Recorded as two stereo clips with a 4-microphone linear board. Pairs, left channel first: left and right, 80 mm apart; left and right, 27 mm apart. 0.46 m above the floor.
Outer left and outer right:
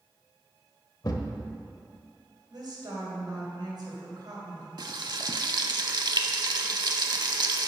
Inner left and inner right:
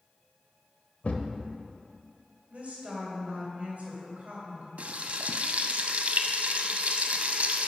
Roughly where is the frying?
Right.